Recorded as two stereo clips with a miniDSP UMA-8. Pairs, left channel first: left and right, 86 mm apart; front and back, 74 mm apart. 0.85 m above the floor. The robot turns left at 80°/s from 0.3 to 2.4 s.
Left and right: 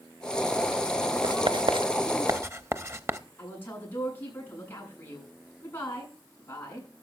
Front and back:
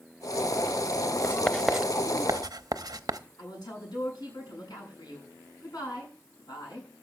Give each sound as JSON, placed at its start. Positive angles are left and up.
{"t": 1.2, "sound": "writing", "azimuth_deg": -55, "distance_m": 0.8}
{"t": 3.4, "sound": "a woman speaking", "azimuth_deg": 25, "distance_m": 8.0}